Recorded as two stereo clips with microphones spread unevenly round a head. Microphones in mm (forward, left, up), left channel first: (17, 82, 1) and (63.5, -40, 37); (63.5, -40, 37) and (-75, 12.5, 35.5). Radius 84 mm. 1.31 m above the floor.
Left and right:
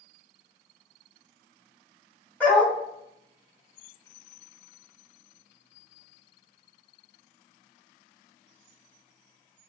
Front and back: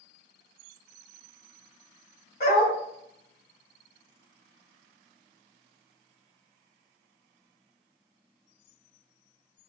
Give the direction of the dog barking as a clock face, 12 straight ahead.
11 o'clock.